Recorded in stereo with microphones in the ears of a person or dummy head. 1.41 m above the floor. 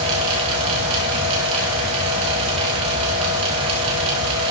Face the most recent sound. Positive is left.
turn(degrees=-35)  # may be behind; listen again after turning